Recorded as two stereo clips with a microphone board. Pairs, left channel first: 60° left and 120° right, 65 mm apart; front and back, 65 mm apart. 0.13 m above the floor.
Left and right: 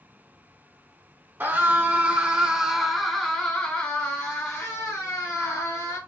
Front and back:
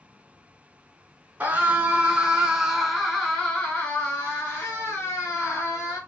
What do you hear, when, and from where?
1.4 s a scream: 135° right, 1.5 m; by 6.0 s 40° left, 2 m